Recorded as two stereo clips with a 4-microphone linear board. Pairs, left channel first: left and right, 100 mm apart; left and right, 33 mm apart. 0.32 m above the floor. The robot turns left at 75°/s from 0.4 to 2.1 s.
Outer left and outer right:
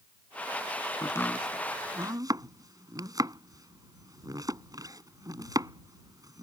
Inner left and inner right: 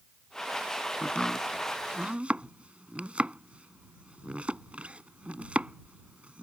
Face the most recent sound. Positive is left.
turn(degrees=-40)  # may be behind; listen again after turning